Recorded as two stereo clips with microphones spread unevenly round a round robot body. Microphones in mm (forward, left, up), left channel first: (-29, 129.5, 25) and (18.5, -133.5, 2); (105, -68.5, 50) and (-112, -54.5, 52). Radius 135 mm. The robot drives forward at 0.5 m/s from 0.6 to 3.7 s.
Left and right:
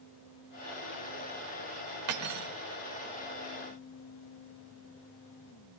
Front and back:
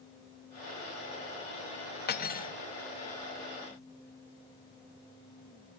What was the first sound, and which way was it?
Cutlery clinking, 45° right.